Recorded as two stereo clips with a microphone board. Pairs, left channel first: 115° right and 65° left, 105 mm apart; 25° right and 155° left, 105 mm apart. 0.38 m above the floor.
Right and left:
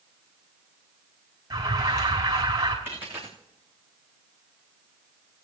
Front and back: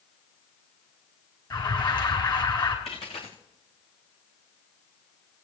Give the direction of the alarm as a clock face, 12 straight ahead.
11 o'clock.